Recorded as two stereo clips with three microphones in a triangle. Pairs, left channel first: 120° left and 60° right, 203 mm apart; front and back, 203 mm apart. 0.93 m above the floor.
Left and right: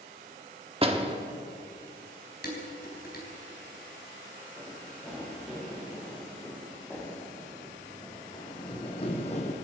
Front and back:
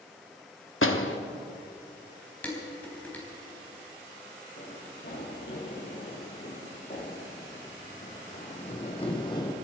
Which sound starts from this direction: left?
Dishes clattering, at 2.4 s.